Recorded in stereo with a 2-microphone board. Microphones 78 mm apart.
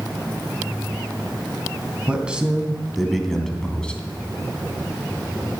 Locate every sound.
2.1 s a man speaking: 15° right (ahead or behind), 2.5 m; by 4.0 s 15° left (ahead or behind), 2.5 m